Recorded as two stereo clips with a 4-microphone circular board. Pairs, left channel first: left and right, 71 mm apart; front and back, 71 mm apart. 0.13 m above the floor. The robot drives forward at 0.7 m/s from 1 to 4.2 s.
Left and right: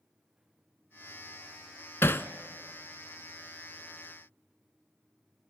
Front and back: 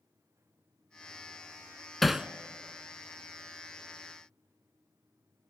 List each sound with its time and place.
2.0 s hammering: 85° left, 0.6 m; by 2.3 s 115° left, 0.6 m